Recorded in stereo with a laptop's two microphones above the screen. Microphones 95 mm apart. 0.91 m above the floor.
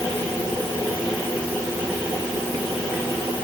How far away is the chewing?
I don't hear chewing.